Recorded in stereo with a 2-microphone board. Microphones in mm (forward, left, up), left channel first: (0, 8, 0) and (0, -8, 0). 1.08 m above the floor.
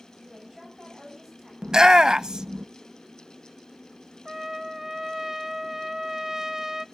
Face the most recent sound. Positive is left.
turn(degrees=-25)  # may be behind; listen again after turning